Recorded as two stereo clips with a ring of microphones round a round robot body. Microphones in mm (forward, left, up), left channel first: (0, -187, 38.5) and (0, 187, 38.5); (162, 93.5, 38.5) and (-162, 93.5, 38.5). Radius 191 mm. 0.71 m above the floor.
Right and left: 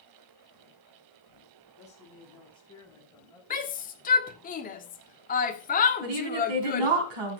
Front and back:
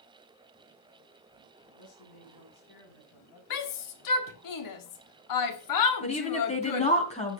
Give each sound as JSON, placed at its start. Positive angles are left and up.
{"t": 1.8, "sound": "a man speaking", "azimuth_deg": -20, "distance_m": 7.0}
{"t": 3.5, "sound": "a shout", "azimuth_deg": -20, "distance_m": 1.6}
{"t": 6.0, "sound": "a woman speaking", "azimuth_deg": 70, "distance_m": 5.0}